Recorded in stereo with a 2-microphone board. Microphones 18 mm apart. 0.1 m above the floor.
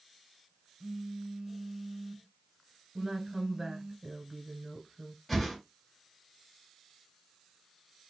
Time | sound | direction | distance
0.8 | a phone buzzing | 40° right (ahead or behind) | 0.6 m
3.0 | a woman speaking | 15° right (ahead or behind) | 1.2 m
5.3 | a whoosh | 10° left (ahead or behind) | 2.5 m